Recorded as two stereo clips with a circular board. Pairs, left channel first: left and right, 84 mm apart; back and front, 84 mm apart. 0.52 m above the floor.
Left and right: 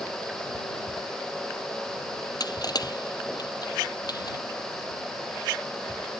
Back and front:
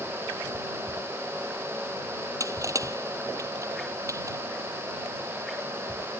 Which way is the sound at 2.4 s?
50° left.